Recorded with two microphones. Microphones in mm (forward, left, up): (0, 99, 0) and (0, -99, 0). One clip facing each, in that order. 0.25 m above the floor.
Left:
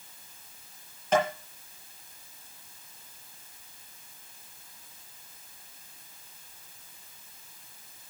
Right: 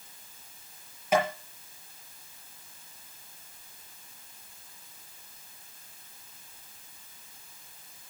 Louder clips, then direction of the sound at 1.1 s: Even; 10° right (ahead or behind).